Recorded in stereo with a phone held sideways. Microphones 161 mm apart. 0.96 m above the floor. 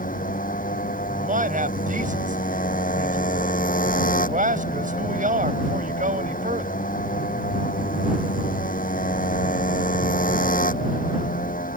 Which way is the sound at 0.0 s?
55° left (ahead or behind).